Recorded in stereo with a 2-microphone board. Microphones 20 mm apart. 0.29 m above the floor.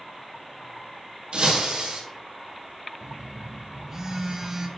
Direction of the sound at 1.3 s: 60° right (ahead or behind).